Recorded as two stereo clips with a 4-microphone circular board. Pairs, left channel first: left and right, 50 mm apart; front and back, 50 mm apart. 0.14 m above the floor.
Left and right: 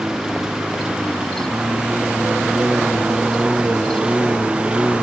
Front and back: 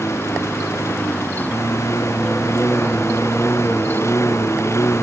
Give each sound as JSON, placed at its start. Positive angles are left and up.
{"t": 0.0, "sound": "a lawn mower", "azimuth_deg": -15}